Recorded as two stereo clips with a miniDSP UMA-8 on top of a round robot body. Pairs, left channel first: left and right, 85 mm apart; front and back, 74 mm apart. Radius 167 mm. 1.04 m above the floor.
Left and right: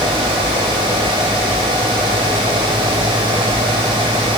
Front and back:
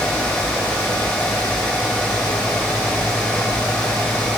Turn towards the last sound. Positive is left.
No sound to turn to.